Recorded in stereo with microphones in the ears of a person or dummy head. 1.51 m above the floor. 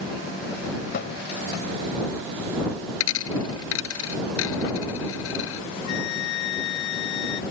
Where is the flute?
70° left (ahead or behind).